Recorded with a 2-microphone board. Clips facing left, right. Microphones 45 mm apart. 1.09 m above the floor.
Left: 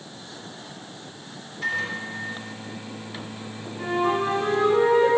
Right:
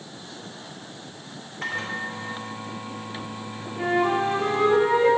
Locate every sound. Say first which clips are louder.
1.6 s a microwave: left 2 dB; 50° right (ahead or behind), 1.9 m
3.8 s a flute: right 1 dB; 70° right (ahead or behind), 3.5 m